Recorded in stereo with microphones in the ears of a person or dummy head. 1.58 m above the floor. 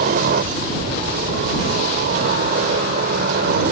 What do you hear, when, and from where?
0.0 s a helicopter: 45° right (ahead or behind); by 3.7 s 50° right (ahead or behind)